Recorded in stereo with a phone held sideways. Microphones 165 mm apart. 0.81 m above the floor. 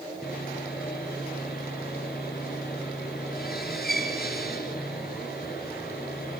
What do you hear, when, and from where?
0.2 s sawing: 70° left (ahead or behind), 4.5 m